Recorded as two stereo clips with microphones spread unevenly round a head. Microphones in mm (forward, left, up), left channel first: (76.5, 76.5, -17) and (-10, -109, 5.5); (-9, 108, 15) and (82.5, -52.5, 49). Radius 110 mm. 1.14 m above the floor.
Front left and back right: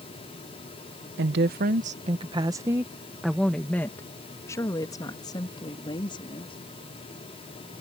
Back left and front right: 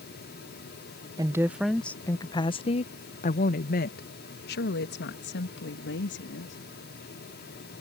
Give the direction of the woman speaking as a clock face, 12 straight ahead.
5 o'clock.